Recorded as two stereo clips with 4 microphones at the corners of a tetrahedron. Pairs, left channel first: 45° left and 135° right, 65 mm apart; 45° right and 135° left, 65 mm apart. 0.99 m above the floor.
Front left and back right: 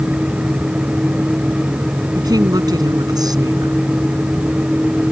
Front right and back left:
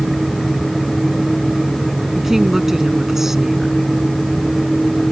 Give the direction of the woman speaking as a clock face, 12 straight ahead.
5 o'clock.